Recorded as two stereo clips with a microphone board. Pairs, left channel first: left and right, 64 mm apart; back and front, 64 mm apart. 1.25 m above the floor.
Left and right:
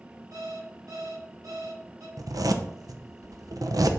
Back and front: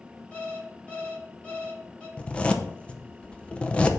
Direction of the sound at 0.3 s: 110° right.